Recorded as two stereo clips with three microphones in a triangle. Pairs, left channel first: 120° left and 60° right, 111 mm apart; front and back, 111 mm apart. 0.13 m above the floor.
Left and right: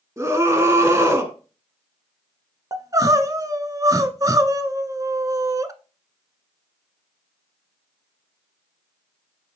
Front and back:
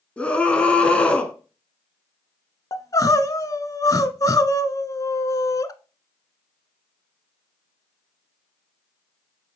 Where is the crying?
30° right, 0.7 m.